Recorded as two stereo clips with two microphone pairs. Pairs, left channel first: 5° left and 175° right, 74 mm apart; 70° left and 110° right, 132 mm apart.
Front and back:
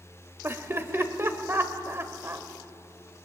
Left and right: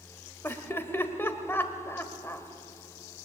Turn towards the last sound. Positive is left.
turn(degrees=140)